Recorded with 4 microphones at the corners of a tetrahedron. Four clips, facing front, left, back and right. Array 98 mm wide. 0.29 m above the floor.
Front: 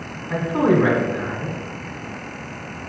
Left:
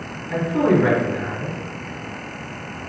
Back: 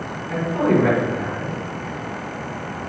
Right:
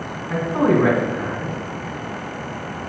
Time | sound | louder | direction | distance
0.3 | a man speaking | even, front 1 dB | 65° right | 1.9 m